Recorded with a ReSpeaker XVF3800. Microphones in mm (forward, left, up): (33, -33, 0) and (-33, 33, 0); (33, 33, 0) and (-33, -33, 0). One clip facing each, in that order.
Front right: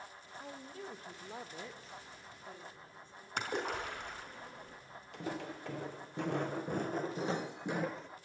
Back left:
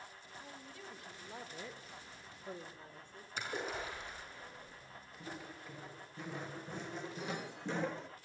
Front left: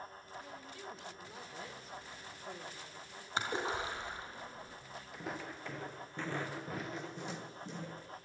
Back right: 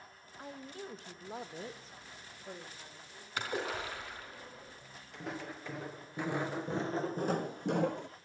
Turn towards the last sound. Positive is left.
turn(degrees=-140)